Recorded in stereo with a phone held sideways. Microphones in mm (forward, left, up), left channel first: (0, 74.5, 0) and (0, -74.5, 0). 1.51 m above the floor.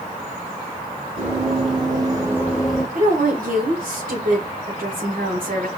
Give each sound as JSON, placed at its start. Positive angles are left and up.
{"t": 1.2, "sound": "running footsteps", "side_deg": -45, "distance_m": 3.0}
{"t": 3.0, "sound": "a woman speaking", "side_deg": -70, "distance_m": 1.6}